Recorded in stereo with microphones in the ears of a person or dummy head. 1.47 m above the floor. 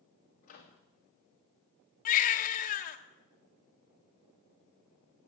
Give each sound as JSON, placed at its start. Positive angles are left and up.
{"t": 0.4, "sound": "a microwave", "side_deg": 45, "distance_m": 2.5}
{"t": 2.0, "sound": "a baby crying", "side_deg": 40, "distance_m": 1.4}